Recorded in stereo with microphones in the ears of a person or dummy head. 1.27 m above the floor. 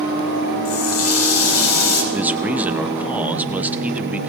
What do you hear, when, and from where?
0.7 s a running tap: 85° left, 4.5 m
2.1 s a man speaking: 15° right (ahead or behind), 0.8 m